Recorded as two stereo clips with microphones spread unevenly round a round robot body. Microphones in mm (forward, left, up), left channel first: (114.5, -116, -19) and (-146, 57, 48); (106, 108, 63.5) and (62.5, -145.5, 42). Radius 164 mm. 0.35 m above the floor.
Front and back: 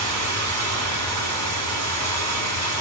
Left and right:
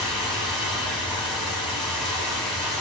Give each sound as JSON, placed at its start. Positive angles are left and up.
{"t": 0.0, "sound": "running water", "azimuth_deg": 175, "distance_m": 1.0}